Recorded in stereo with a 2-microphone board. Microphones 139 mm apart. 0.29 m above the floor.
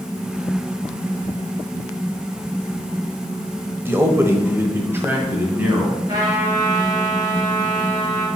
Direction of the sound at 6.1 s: 30° right (ahead or behind).